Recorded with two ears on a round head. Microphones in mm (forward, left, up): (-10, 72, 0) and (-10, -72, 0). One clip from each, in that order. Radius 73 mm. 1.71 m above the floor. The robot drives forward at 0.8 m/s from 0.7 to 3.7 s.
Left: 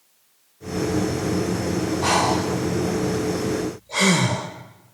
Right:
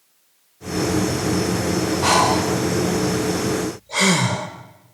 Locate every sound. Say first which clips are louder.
2.0 s breathing: right 3 dB; 20° right (ahead or behind), 1.6 m; by 4.5 s 10° right (ahead or behind), 2.5 m